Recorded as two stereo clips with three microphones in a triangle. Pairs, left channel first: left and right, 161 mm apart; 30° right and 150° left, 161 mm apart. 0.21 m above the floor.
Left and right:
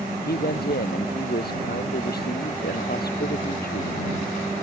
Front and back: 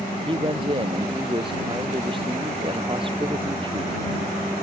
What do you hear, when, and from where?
0.3 s a man speaking: 95° left